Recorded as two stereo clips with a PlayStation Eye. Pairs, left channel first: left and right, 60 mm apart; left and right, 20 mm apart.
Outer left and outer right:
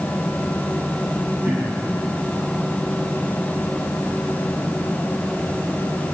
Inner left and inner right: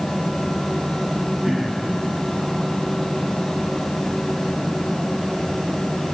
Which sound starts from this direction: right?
Throat clearing, at 1.4 s.